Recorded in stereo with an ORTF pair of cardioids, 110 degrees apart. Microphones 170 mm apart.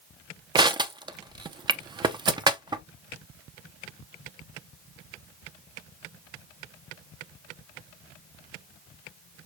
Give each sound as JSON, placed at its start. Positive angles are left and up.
{"t": 0.6, "sound": "crushing", "azimuth_deg": -25, "distance_m": 0.5}